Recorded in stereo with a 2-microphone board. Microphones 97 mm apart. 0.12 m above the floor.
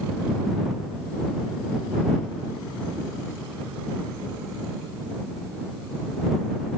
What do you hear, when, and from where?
Only background noise.